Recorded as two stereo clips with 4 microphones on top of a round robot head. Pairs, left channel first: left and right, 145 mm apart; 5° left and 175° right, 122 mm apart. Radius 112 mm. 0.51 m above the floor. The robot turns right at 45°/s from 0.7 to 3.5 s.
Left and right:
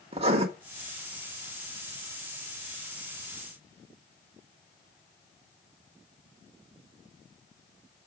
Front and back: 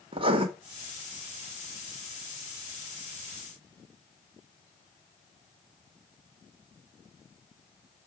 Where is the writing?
135° right, 1.6 m.